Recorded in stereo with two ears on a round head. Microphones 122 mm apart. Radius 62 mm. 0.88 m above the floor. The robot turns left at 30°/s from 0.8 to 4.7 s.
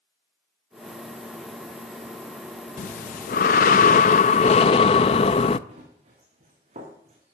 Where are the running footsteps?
50° right (ahead or behind), 5 m.